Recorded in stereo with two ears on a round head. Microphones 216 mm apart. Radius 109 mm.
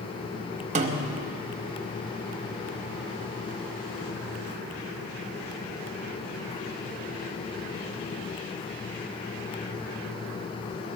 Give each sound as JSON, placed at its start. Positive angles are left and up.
{"t": 0.8, "sound": "a snare drum", "side_deg": -30, "distance_m": 0.8}